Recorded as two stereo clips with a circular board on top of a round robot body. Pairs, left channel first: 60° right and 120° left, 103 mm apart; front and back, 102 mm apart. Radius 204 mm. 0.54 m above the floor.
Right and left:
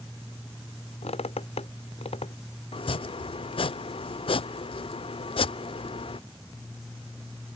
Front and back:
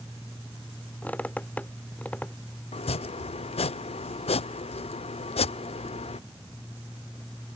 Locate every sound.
1.0 s a squeak: 75° right
2.7 s chopping: 25° right